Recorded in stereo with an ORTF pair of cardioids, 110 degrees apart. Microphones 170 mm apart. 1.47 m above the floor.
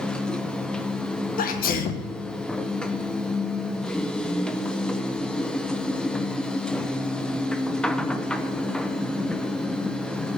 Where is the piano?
No piano in this recording.